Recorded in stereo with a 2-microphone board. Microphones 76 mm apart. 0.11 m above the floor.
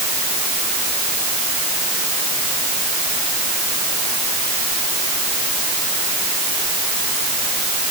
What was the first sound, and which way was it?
Only background noise.